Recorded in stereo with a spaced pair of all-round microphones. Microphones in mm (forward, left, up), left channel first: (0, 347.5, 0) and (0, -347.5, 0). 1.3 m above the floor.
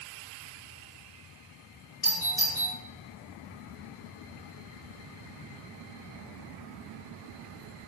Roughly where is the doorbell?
Left.